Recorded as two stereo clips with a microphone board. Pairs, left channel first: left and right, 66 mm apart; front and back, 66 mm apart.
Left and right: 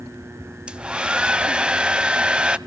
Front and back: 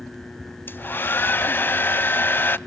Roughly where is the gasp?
No gasp in this recording.